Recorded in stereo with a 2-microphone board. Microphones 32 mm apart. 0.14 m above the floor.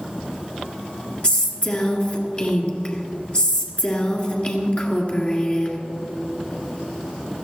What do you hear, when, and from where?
1.2 s a woman speaking: 40° left (ahead or behind), 1.7 m